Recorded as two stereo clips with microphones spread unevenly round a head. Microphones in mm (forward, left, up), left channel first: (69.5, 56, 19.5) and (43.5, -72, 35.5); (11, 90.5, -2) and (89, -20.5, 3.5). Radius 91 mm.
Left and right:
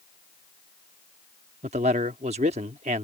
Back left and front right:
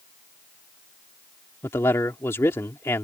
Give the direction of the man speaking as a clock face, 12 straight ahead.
5 o'clock.